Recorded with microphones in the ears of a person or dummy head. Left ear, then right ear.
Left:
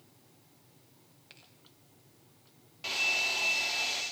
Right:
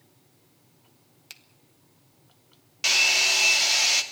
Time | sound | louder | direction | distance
1.3 | a finger snap | right 10 dB | 85° right | 1.9 m
2.8 | a hair dryer | right 9 dB | 60° right (ahead or behind) | 2.5 m